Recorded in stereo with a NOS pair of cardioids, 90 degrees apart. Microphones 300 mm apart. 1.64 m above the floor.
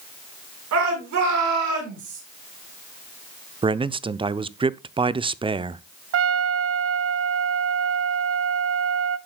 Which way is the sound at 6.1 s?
50° right.